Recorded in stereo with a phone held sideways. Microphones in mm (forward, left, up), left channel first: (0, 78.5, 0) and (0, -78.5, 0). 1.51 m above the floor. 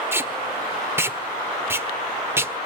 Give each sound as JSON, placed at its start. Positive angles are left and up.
{"t": 0.1, "sound": "tape being pulled", "side_deg": -15, "distance_m": 1.3}